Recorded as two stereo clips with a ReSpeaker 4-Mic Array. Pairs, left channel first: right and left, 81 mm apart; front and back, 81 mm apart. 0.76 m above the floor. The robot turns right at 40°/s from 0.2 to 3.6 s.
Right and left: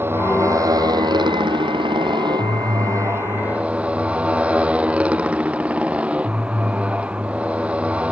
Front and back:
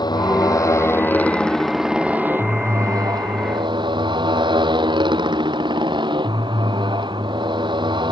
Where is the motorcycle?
30° left; by 8.1 s 165° left.